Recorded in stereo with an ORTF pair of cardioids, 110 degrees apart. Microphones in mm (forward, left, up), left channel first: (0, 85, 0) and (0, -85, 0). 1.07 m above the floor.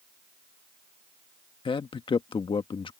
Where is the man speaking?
30° left.